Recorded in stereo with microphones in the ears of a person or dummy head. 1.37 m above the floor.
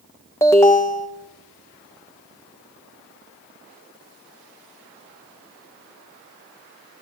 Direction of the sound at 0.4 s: 10° left (ahead or behind).